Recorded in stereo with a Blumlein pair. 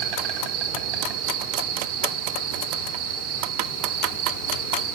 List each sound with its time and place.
0.0 s an insect: 50° right, 2 m